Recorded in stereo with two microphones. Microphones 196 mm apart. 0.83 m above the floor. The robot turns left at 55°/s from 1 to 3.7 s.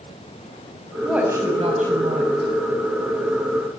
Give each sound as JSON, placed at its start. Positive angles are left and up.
{"t": 1.0, "sound": "a woman speaking", "azimuth_deg": 0, "distance_m": 5.5}